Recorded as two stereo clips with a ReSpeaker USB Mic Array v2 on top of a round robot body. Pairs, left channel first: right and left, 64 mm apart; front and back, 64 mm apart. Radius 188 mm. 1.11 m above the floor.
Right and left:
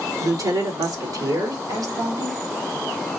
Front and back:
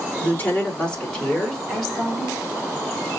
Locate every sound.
0.2 s a woman speaking: 65° left, 3.5 m; by 2.4 s 100° left, 4 m